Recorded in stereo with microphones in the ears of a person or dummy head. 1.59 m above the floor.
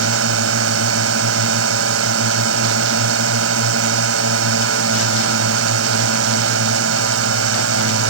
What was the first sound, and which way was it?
A drone, 85° right.